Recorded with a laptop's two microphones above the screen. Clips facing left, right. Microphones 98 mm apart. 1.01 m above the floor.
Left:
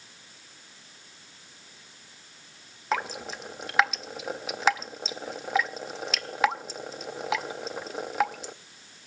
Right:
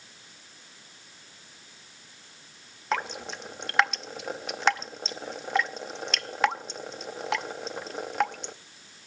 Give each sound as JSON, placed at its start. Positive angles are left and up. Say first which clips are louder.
{"t": 2.9, "sound": "dripping", "louder": "left 1 dB", "side_deg": 0, "distance_m": 0.6}